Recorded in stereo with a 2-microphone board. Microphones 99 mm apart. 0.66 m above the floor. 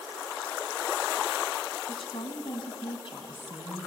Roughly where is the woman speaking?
Left.